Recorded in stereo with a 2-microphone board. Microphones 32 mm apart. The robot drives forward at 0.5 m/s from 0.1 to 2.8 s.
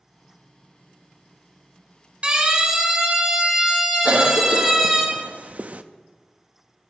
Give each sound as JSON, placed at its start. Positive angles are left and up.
{"t": 2.2, "sound": "a siren", "side_deg": -35, "distance_m": 5.5}
{"t": 4.0, "sound": "a cough", "side_deg": -45, "distance_m": 0.7}